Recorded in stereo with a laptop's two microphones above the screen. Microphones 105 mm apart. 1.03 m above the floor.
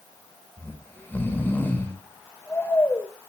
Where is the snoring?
15° left (ahead or behind), 3 m.